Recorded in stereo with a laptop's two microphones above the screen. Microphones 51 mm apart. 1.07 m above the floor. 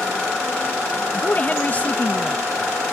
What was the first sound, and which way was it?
A woman speaking, 30° left (ahead or behind).